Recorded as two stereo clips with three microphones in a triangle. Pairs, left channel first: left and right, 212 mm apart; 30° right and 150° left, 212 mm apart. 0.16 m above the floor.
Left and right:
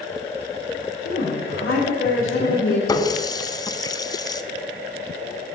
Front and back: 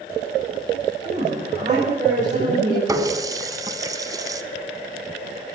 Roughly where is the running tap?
Behind left.